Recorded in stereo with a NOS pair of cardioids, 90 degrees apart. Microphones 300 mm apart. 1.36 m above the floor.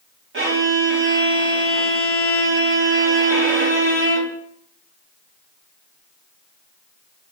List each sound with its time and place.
0.3 s a violin: 45° right, 1.3 m